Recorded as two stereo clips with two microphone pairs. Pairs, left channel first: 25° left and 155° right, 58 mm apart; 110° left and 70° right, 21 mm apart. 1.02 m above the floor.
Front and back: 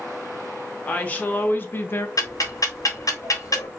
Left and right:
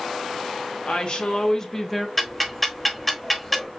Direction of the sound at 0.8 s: 85° left.